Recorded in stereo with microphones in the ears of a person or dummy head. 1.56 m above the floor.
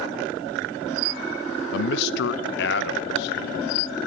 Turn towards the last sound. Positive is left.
turn(degrees=75)  # may be behind; listen again after turning